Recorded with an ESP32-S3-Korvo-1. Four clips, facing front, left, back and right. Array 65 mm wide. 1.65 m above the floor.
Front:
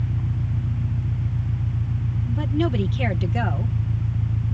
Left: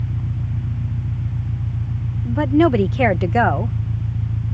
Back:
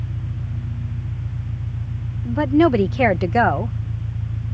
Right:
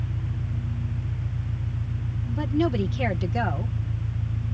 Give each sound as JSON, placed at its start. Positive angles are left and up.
{"t": 0.0, "sound": "an engine running", "azimuth_deg": 50}
{"t": 2.2, "sound": "a woman speaking", "azimuth_deg": 140}